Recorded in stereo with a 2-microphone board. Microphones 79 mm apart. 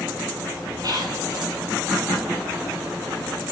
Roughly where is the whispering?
Right.